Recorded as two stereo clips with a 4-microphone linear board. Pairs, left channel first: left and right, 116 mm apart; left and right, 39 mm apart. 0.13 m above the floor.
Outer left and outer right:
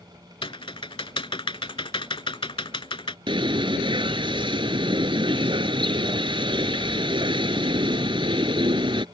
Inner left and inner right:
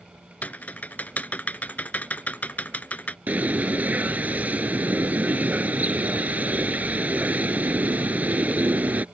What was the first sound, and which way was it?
Typing on a keyboard, 50° left (ahead or behind).